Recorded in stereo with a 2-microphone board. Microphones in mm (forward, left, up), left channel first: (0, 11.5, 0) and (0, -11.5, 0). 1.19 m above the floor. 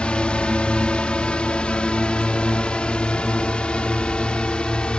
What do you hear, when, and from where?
0.0 s a drone: 50° left (ahead or behind); by 5.0 s 45° left (ahead or behind)